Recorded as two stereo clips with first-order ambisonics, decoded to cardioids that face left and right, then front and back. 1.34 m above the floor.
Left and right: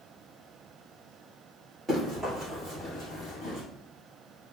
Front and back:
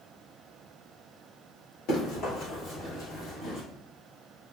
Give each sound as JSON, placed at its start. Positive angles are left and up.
{"t": 1.9, "sound": "running footsteps", "azimuth_deg": 0, "distance_m": 1.8}